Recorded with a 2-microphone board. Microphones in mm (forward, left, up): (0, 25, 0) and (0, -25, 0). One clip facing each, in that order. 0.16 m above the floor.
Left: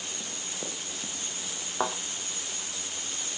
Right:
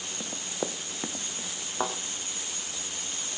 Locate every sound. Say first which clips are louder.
0.2 s running footsteps: right 4 dB; 40° right (ahead or behind), 1.2 m; by 1.5 s 55° right (ahead or behind), 2 m
1.8 s a thud: left 1 dB; 5° left (ahead or behind), 2.5 m